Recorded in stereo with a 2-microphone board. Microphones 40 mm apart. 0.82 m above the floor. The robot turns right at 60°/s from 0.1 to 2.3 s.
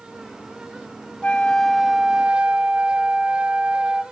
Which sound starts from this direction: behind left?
A flute, at 1.2 s.